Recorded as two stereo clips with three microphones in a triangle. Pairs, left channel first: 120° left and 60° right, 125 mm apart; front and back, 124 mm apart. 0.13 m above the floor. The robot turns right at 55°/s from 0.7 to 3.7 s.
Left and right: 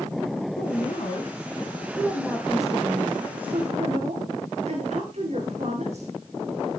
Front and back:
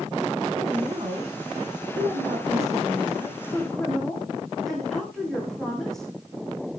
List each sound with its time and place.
0.6 s a woman speaking: 110° left, 8 m; by 6.1 s 85° right, 8 m